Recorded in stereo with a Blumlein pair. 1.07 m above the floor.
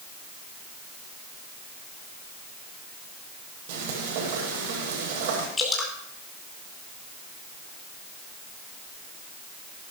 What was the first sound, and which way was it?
Frying, 50° right.